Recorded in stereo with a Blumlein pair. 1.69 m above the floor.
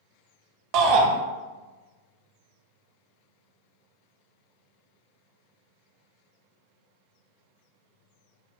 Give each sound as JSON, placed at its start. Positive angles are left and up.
{"t": 0.7, "sound": "a shout", "azimuth_deg": -40, "distance_m": 0.9}